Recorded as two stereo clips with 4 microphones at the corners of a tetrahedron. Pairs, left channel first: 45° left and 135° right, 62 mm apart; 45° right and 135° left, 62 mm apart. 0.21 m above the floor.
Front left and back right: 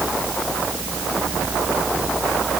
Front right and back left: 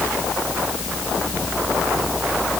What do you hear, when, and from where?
Only background noise.